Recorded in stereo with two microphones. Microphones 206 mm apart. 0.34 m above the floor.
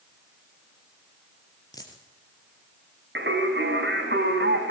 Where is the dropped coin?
20° left (ahead or behind), 4 m.